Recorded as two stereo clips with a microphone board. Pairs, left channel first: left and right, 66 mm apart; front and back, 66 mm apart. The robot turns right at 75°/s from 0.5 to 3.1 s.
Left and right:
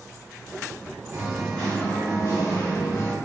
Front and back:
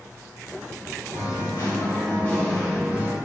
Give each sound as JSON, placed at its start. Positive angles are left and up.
{"t": 1.1, "sound": "singing", "azimuth_deg": -20, "distance_m": 1.5}